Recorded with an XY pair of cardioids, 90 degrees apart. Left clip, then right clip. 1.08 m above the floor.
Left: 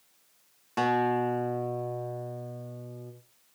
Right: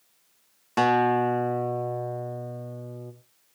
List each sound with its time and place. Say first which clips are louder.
0.8 s a guitar: right 5 dB; 45° right, 1.8 m